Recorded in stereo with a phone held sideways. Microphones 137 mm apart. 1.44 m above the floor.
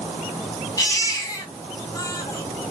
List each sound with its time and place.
0.8 s a baby crying: 25° left (ahead or behind), 0.8 m